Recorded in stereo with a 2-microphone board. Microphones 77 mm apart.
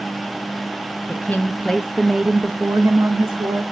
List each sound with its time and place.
1.1 s a woman speaking: 25° left (ahead or behind), 1.2 m; by 3.6 s 50° right (ahead or behind), 1.2 m